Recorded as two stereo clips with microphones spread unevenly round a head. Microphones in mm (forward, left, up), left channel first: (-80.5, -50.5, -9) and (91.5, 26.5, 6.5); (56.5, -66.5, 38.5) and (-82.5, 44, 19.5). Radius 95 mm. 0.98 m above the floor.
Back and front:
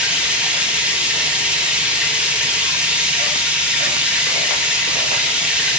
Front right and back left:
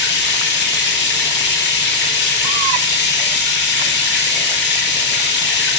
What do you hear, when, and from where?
0.0 s running water: 60° right, 1.0 m